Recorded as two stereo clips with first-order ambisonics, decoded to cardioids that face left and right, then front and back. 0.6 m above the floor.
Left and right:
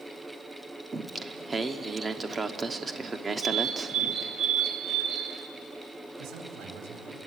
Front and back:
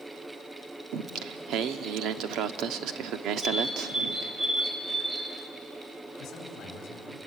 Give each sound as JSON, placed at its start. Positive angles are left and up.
{"t": 0.9, "sound": "singing", "azimuth_deg": -165, "distance_m": 0.9}
{"t": 3.4, "sound": "a bird", "azimuth_deg": -100, "distance_m": 1.6}
{"t": 6.2, "sound": "a man speaking", "azimuth_deg": -60, "distance_m": 4.0}